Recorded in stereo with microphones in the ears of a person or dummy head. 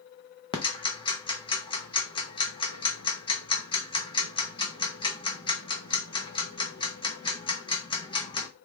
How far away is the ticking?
About 0.8 m.